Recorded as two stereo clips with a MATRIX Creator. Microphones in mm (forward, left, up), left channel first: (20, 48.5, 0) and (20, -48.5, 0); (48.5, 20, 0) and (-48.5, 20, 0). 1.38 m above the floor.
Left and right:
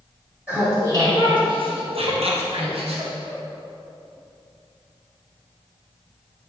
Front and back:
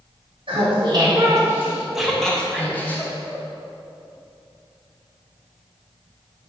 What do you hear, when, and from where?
0.5 s laughter: 160° right, 1.5 m; by 3.4 s 65° right, 2.5 m